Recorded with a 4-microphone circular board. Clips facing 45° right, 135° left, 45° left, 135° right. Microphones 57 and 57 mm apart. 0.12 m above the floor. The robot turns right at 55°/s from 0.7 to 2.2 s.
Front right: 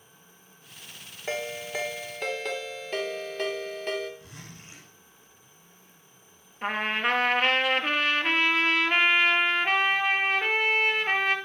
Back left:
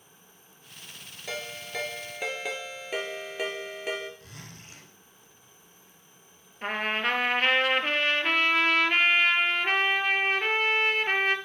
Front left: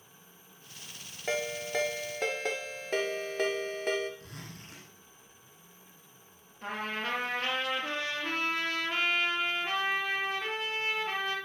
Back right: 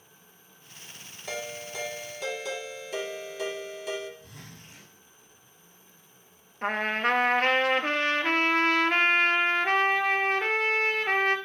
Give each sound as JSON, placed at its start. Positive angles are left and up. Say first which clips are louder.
{"t": 1.3, "sound": "a ringtone", "louder": "front right 4 dB, front left 4 dB", "azimuth_deg": 5, "distance_m": 1.5}
{"t": 4.2, "sound": "a zipper", "louder": "front right 1 dB, front left 1 dB", "azimuth_deg": 25, "distance_m": 7.0}
{"t": 6.6, "sound": "a trumpet", "louder": "front right 1 dB, back right 8 dB", "azimuth_deg": -130, "distance_m": 1.1}